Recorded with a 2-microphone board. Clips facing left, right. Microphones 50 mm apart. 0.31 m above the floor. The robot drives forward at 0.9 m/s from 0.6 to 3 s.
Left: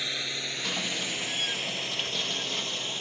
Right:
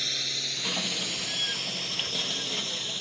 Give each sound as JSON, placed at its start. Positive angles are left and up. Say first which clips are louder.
{"t": 0.0, "sound": "a drone", "louder": "left 1 dB", "side_deg": 20}